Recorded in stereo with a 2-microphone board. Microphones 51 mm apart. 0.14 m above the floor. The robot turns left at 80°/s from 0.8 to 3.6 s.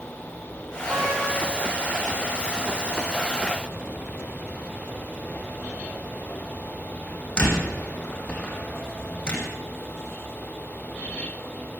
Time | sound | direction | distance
0.9 | a door slam | 55° right (ahead or behind) | 6 m